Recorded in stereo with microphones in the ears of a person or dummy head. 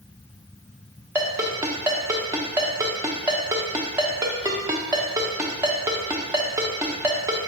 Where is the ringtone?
15° right (ahead or behind), 0.6 m.